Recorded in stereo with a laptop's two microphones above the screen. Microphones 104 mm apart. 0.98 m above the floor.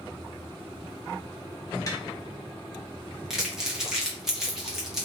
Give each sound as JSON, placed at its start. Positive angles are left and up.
{"t": 1.9, "sound": "tapping", "side_deg": 30, "distance_m": 0.7}
{"t": 3.3, "sound": "crumpling", "side_deg": -5, "distance_m": 1.2}